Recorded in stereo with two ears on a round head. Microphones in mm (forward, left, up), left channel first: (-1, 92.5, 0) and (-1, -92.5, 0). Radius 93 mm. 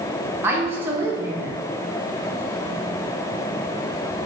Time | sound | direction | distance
0.4 | a woman speaking | 10° right (ahead or behind) | 0.9 m